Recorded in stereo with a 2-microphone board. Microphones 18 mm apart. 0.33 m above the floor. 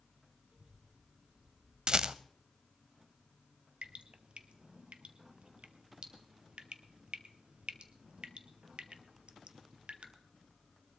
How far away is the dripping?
About 1.0 m.